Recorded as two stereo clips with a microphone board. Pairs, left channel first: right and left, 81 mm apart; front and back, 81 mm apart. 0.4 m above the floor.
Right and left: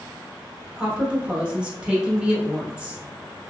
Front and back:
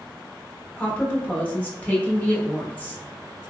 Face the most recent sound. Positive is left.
turn(degrees=30)